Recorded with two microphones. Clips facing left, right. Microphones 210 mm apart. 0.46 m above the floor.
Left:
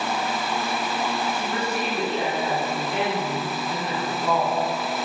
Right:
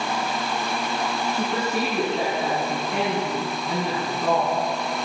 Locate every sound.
1.3 s a woman speaking: 70° right (ahead or behind), 4.5 m